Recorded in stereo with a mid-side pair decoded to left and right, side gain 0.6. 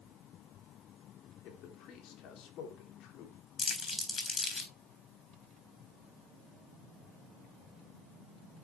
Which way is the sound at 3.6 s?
25° left.